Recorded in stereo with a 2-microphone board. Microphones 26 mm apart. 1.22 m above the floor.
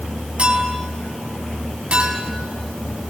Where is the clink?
45° right (ahead or behind), 5 m.